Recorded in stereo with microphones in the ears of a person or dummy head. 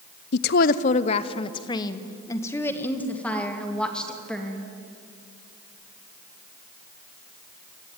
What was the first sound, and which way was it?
A woman speaking, 60° left (ahead or behind).